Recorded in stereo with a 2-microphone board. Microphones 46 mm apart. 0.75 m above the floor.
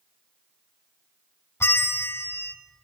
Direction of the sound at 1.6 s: 80° left.